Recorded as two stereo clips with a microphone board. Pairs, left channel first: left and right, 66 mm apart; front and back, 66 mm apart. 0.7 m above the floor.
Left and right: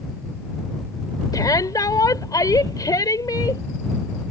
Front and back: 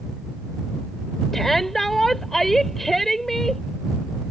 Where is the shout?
85° left.